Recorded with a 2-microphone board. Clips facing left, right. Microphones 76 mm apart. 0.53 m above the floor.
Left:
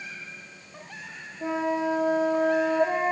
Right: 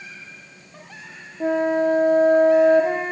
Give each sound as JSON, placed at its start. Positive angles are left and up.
{"t": 1.4, "sound": "a flute", "side_deg": -55, "distance_m": 4.0}